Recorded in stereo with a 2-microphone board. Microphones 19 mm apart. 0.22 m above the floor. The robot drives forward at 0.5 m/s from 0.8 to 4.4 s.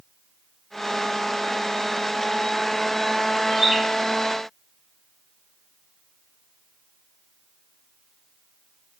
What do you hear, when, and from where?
3.5 s a bird: centre (ahead or behind), 1.0 m